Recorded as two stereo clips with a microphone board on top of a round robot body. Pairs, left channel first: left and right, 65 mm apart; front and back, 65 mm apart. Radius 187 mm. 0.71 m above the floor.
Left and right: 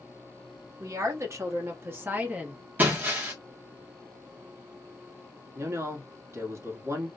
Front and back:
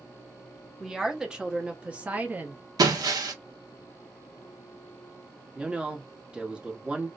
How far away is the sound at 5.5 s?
About 1.3 m.